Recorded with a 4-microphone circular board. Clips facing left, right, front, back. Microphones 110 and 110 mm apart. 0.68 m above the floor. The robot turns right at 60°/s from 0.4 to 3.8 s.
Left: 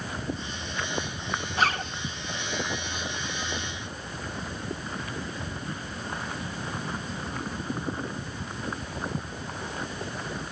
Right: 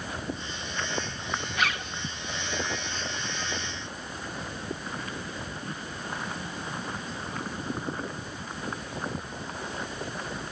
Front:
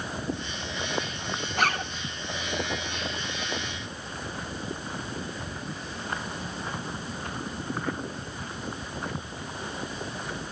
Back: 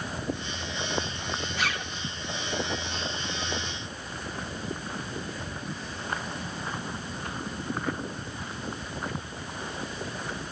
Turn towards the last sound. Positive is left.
turn(degrees=170)